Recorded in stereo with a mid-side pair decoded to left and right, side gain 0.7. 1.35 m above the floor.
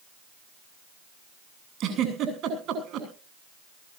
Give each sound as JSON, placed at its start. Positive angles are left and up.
{"t": 1.8, "sound": "a giggle", "azimuth_deg": -50, "distance_m": 8.0}